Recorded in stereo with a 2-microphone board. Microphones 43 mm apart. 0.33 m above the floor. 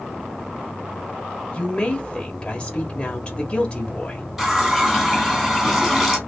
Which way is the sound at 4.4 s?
10° right (ahead or behind).